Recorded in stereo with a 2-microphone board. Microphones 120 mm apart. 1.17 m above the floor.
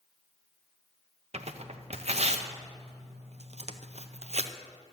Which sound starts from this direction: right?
Tearing paper, at 1.3 s.